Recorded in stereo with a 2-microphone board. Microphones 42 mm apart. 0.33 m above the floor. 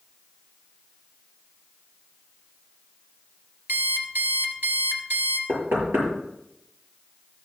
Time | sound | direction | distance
3.7 | an alarm clock | 60° right (ahead or behind) | 2.5 m
5.5 | knocking | 80° right | 7 m